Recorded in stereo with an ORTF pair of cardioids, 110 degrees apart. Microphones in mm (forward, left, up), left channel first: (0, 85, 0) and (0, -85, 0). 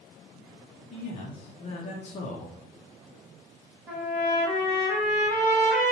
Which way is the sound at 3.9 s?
15° right.